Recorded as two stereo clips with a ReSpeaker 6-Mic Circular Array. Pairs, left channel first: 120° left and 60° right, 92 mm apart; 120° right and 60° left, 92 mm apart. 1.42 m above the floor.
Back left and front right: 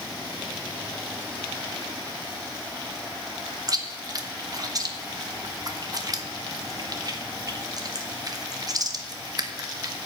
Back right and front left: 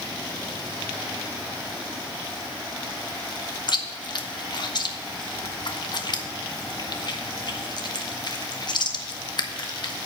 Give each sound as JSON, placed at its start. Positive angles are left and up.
{"t": 3.7, "sound": "chewing", "azimuth_deg": -100, "distance_m": 0.8}